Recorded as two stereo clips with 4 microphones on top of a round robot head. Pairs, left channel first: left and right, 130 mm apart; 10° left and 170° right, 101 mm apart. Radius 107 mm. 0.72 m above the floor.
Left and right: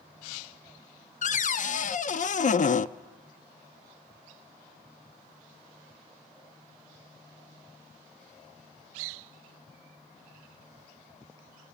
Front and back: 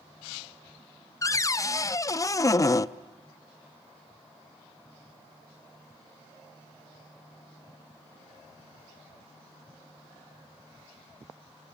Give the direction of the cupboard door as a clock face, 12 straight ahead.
10 o'clock.